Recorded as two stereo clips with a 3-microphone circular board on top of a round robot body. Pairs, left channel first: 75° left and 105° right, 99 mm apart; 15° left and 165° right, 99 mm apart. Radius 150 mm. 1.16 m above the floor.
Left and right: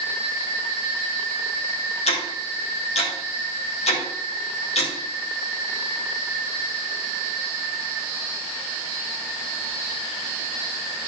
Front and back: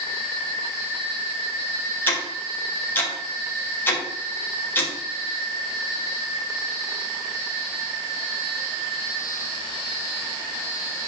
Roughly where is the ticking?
Left.